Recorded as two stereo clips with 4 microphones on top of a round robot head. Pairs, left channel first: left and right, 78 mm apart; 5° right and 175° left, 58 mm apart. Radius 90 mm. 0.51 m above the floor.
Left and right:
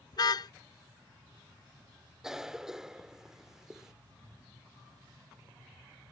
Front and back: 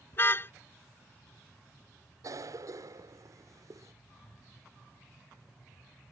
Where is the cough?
175° right.